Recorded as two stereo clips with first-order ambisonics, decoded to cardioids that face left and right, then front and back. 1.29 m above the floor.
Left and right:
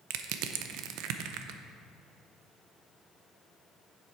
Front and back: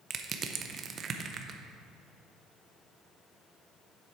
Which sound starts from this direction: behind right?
Crushing, at 0.1 s.